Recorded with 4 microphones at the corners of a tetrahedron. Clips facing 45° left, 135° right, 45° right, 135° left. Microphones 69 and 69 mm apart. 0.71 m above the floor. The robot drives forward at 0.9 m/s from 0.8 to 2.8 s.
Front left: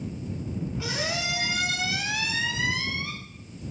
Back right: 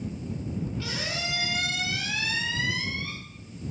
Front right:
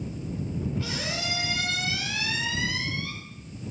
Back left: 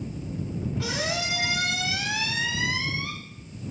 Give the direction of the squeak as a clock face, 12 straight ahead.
8 o'clock.